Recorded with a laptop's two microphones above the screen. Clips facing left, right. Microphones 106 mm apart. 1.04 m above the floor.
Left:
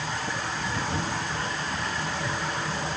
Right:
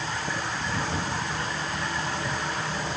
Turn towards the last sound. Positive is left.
No sound to turn to.